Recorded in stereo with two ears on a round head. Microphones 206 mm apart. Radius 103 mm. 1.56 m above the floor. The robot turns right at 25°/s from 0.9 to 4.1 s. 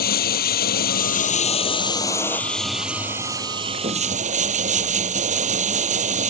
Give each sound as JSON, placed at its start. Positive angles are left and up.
{"t": 0.0, "sound": "running water", "azimuth_deg": 135}